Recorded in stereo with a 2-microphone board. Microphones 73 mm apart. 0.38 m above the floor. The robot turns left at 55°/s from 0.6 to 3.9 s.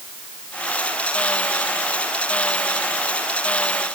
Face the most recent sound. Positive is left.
No sound to turn to.